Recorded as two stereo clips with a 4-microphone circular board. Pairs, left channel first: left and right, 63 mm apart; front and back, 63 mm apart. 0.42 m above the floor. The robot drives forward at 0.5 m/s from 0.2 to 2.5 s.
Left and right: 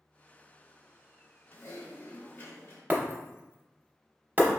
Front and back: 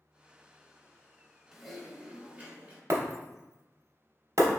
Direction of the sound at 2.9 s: 150° right.